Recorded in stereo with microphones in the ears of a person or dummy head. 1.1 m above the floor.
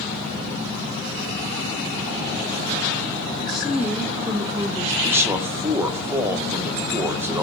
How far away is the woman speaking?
About 1.0 m.